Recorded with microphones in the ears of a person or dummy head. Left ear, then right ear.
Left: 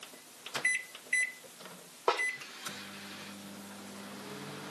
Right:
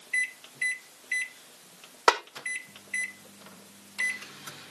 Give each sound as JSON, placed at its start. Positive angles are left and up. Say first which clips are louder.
{"t": 2.1, "sound": "a snare drum", "louder": "right 7 dB", "side_deg": -70, "distance_m": 1.1}